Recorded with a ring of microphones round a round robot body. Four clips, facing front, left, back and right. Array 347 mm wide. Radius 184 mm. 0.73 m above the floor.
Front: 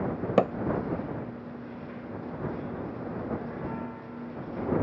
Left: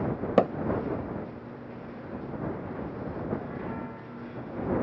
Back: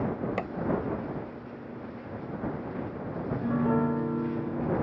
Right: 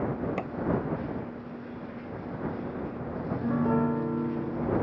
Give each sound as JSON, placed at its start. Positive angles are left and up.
{"t": 0.4, "sound": "hammering", "azimuth_deg": 50}
{"t": 3.2, "sound": "a piano", "azimuth_deg": -135}